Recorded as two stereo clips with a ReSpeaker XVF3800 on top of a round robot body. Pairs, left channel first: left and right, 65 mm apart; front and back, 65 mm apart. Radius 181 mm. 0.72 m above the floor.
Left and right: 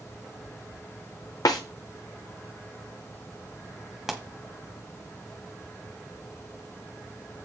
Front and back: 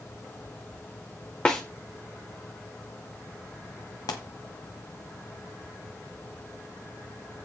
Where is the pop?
5° right, 0.9 m.